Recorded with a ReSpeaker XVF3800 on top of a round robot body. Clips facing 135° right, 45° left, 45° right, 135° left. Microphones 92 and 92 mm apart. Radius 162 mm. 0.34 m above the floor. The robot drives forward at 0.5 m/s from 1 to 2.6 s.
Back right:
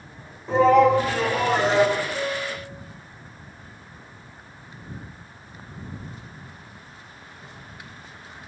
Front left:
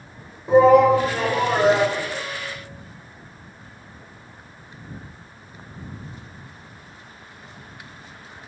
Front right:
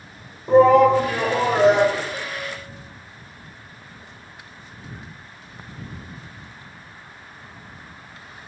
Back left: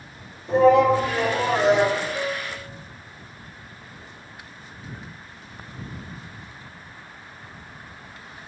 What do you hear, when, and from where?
0.5 s a shout: 30° right, 2.5 m; by 2.0 s 35° right, 2 m
2.1 s a piano: 15° left, 1.9 m; by 2.7 s 20° left, 1.6 m